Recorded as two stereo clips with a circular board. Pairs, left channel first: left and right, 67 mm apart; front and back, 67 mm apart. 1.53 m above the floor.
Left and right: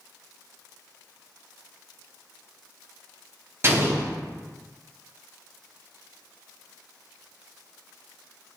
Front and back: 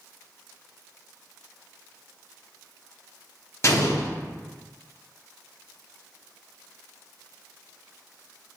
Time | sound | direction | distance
3.6 | an explosion | 40° right | 0.8 m